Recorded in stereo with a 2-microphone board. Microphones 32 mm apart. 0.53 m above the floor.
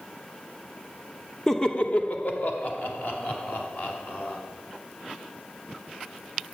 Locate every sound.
1.5 s laughter: 10° left (ahead or behind), 0.7 m; by 4.4 s 65° left (ahead or behind), 4 m